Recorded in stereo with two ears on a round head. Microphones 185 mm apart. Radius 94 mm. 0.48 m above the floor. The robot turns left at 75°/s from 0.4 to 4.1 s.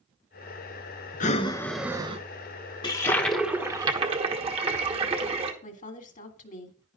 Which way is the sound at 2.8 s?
40° left.